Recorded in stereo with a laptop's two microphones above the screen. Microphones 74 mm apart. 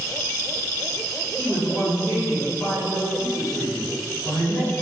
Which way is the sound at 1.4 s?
25° right (ahead or behind).